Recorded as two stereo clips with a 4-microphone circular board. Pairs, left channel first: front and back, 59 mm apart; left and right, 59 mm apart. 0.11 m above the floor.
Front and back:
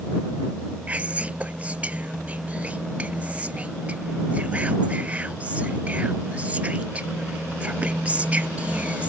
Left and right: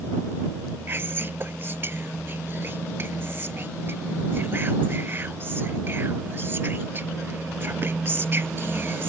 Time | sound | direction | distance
0.9 | whispering | 125° right | ?